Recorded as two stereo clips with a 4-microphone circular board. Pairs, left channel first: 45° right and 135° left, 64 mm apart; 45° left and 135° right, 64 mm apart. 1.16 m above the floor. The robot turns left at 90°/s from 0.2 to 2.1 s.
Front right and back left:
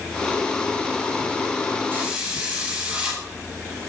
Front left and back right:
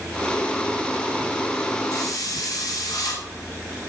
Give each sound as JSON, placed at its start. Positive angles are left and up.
{"t": 1.9, "sound": "a hiss", "azimuth_deg": 70, "distance_m": 7.0}